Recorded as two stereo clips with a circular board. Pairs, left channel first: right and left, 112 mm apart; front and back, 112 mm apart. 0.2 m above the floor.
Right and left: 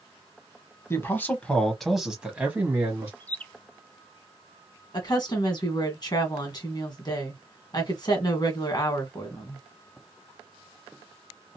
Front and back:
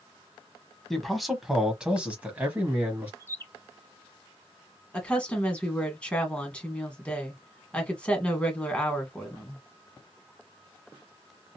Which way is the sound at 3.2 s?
30° right.